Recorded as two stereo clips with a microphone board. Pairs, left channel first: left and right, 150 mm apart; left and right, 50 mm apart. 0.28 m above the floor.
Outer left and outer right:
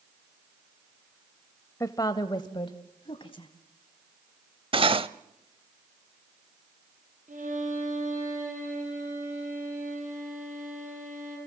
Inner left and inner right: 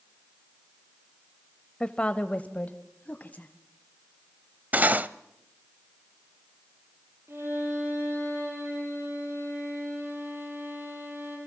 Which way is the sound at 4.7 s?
35° right (ahead or behind).